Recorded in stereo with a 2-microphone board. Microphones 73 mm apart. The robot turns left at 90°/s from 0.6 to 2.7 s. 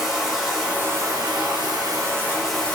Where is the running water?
5° right, 1.6 m; by 2.8 s 165° left, 1.6 m.